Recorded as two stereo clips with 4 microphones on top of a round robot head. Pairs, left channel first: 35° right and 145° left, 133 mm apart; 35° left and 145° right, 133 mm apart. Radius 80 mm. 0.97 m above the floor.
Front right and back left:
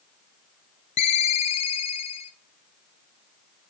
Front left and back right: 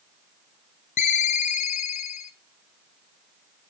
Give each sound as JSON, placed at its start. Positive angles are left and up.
{"t": 1.0, "sound": "a ringtone", "azimuth_deg": 5, "distance_m": 0.5}